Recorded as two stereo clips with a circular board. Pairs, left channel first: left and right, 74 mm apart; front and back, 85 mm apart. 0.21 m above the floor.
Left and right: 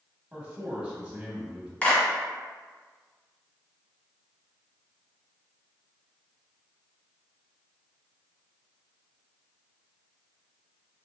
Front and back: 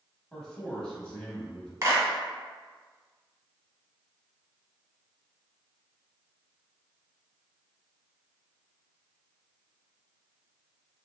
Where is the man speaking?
65° right, 1.0 m.